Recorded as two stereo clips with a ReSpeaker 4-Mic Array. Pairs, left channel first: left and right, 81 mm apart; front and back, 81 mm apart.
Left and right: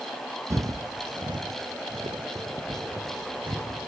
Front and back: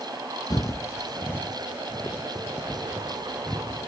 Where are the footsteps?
40° right, 0.8 m; by 3.9 s 85° right, 3.5 m.